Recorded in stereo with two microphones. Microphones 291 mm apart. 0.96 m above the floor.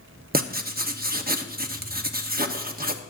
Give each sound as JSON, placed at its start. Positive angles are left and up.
{"t": 0.3, "sound": "writing", "side_deg": -30, "distance_m": 0.8}